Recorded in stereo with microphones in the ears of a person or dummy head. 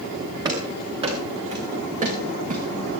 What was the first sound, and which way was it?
Running footsteps, 20° right (ahead or behind).